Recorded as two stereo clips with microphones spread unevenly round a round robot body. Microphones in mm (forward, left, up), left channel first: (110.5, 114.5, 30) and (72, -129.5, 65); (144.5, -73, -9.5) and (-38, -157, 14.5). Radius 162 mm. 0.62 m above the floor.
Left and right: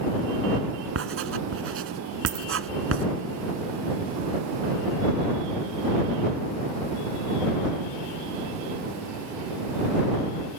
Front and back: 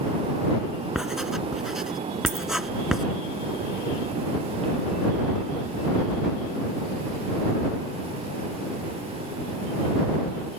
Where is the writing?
70° right.